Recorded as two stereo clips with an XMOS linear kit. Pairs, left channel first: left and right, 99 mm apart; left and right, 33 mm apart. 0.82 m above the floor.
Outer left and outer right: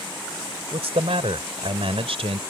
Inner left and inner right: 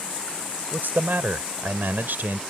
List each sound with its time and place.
0.7 s a man speaking: 80° right